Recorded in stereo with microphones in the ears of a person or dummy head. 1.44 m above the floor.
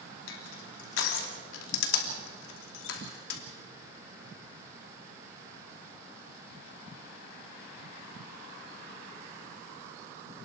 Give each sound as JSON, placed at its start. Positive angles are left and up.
{"t": 0.3, "sound": "crushing", "side_deg": 80, "distance_m": 3.0}